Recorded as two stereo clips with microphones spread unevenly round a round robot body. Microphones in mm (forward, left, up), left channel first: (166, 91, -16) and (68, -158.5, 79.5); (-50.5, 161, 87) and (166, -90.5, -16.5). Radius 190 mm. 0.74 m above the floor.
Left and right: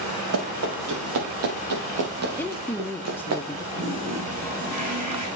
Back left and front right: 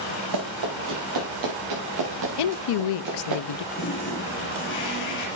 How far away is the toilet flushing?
About 3 m.